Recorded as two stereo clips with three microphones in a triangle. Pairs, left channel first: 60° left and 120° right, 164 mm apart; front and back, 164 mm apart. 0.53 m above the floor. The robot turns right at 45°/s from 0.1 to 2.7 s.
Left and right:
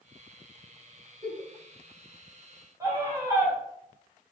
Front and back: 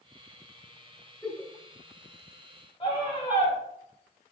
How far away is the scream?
About 2 m.